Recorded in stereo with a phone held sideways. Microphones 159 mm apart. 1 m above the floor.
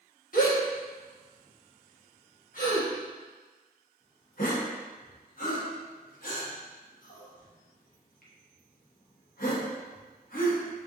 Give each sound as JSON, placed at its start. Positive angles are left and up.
{"t": 0.3, "sound": "a gasp", "side_deg": 60, "distance_m": 1.1}